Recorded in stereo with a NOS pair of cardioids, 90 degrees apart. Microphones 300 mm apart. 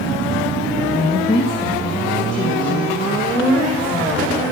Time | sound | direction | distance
0.9 | a woman speaking | 25° left | 0.8 m